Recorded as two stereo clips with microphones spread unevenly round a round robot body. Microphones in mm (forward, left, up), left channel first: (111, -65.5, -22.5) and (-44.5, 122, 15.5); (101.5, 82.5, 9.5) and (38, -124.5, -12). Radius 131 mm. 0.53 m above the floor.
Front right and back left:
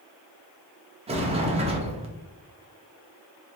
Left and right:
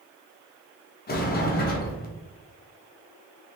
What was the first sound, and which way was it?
A sliding door, 65° left.